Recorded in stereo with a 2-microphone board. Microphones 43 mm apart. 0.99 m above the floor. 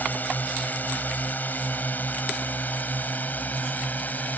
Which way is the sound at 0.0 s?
40° left (ahead or behind).